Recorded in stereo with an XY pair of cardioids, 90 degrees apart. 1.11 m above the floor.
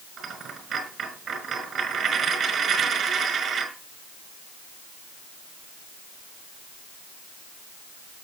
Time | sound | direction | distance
0.2 | a dropped coin | 65° right | 5 m